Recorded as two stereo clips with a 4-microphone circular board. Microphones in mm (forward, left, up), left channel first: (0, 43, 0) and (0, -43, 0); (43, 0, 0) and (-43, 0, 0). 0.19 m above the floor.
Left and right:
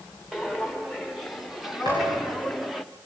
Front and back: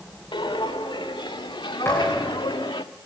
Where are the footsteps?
Straight ahead, 3 m.